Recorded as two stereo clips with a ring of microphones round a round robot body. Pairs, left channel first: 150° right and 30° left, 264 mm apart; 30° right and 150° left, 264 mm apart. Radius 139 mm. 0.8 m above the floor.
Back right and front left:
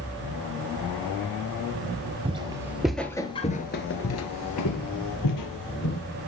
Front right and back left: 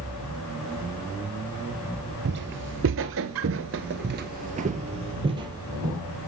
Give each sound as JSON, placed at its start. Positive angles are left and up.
{"t": 2.2, "sound": "footsteps", "azimuth_deg": 100, "distance_m": 1.3}